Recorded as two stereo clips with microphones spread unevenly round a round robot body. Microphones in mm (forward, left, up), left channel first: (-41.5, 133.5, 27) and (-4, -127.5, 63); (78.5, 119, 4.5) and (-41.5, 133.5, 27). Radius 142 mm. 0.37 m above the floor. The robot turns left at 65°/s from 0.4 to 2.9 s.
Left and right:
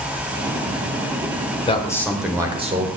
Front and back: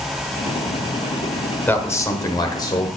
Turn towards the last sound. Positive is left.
turn(degrees=-30)